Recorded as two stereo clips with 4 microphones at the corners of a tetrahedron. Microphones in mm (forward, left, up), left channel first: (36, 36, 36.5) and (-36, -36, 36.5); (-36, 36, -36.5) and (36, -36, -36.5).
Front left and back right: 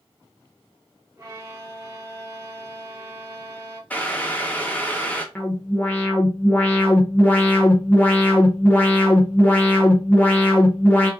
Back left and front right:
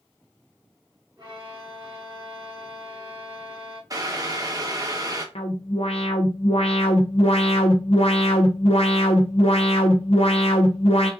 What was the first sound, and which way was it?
A violin, 85° right.